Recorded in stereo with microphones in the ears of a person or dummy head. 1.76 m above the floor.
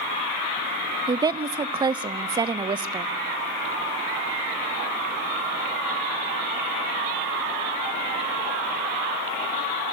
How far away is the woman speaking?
About 0.6 m.